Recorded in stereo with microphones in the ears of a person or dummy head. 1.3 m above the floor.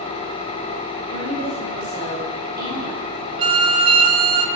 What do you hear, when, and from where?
0.0 s an engine running: 25° left (ahead or behind), 0.9 m
1.1 s a woman speaking: 45° right (ahead or behind), 3 m
3.4 s a violin: 30° right (ahead or behind), 1.0 m